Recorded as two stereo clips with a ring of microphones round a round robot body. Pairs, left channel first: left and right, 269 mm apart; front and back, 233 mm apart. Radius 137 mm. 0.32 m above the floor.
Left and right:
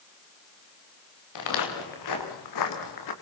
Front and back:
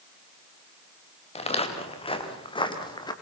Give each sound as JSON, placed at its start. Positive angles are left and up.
{"t": 1.4, "sound": "footsteps", "azimuth_deg": 65, "distance_m": 5.5}